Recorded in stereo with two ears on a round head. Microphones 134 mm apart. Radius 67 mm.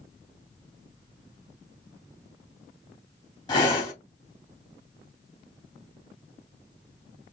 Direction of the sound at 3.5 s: 30° left (ahead or behind).